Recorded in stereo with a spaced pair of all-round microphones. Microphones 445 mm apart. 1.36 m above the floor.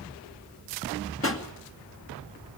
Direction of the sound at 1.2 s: 30° left (ahead or behind).